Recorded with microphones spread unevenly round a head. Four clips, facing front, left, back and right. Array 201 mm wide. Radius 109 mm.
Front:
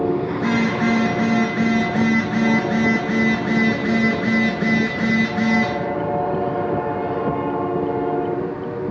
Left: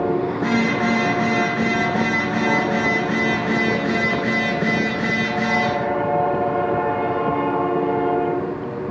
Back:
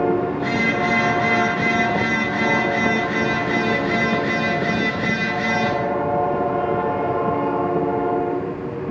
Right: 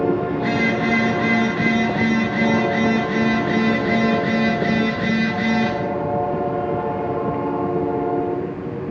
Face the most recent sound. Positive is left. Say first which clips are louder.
# even, front 1 dB
turn(degrees=10)